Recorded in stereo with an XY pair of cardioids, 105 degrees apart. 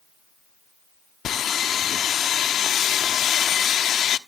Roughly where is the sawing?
Ahead left.